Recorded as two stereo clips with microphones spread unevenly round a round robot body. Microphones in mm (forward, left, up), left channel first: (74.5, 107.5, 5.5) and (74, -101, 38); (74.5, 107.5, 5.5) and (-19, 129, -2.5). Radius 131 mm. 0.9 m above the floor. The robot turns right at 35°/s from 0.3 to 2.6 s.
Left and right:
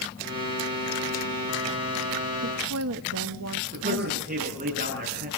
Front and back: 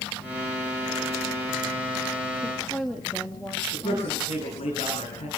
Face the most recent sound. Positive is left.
turn(degrees=-40)